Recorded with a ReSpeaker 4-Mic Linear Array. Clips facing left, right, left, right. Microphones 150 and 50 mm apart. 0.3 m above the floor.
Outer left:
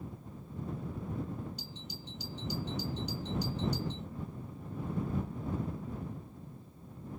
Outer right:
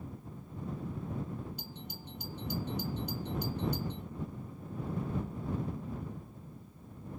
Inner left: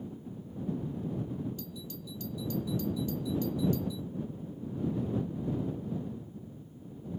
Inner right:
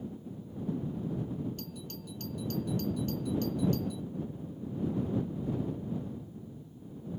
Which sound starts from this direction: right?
A doorbell, at 1.6 s.